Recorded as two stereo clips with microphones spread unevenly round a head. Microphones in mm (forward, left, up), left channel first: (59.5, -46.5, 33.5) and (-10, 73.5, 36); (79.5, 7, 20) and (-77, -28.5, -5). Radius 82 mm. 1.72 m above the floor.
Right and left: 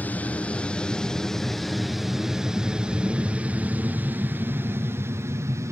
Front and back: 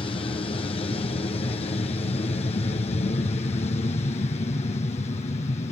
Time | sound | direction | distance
0.0 | an aircraft | 5° right | ?